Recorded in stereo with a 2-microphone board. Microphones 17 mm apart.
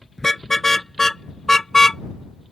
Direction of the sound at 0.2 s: 20° left (ahead or behind).